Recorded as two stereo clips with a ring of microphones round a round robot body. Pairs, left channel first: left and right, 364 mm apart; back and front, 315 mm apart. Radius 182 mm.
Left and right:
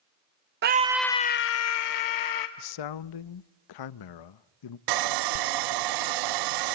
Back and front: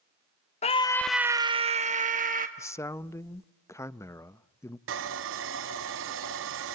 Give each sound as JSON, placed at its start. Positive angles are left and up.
{"t": 0.6, "sound": "a scream", "azimuth_deg": -125, "distance_m": 0.5}
{"t": 2.6, "sound": "a man speaking", "azimuth_deg": 100, "distance_m": 0.6}
{"t": 4.9, "sound": "sawing", "azimuth_deg": -60, "distance_m": 0.6}